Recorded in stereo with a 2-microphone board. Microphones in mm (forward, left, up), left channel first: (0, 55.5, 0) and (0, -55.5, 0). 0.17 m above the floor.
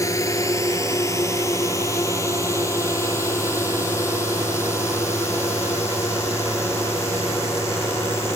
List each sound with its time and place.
0.0 s a drone: 30° left (ahead or behind); by 8.4 s 25° left (ahead or behind)